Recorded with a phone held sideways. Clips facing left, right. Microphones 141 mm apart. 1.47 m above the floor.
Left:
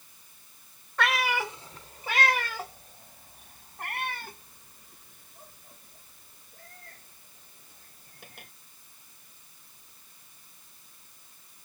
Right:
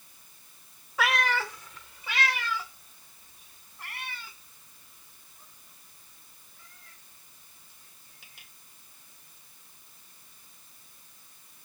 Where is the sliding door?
No sliding door in this recording.